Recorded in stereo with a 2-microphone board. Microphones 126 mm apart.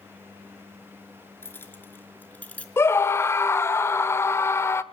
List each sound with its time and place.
1.4 s keys jangling: 20° left (ahead or behind), 3.5 m; by 2.7 s 10° left (ahead or behind), 3 m
2.8 s a scream: 20° left (ahead or behind), 1.0 m